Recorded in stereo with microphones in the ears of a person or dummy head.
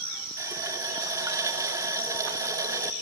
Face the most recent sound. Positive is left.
turn(degrees=-10)  # may be behind; listen again after turning